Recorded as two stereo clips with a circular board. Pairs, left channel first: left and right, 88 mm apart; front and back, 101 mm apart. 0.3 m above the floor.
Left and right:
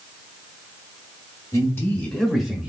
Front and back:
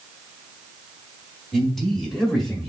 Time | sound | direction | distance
1.5 | a man speaking | 85° left | 1.8 m